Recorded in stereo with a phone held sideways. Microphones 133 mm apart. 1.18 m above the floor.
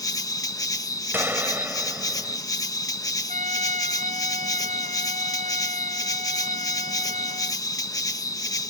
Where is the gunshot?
15° right (ahead or behind).